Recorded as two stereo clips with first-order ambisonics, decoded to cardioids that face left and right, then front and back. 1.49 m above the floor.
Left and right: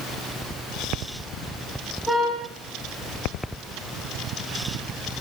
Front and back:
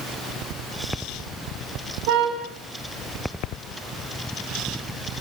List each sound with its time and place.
2.1 s a car horn: straight behind, 6 m